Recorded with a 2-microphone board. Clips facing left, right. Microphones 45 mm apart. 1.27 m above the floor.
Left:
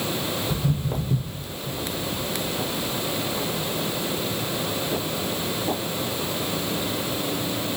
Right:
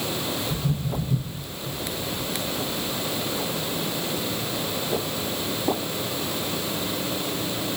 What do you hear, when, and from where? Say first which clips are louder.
0.5 s footsteps: left 1 dB; 55° left (ahead or behind), 2.5 m; by 5.8 s 25° right (ahead or behind), 1.5 m